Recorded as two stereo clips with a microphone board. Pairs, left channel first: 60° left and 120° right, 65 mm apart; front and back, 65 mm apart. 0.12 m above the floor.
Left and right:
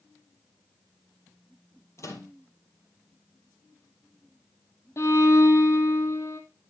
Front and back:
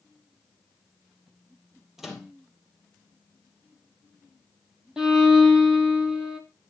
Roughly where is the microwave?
Left.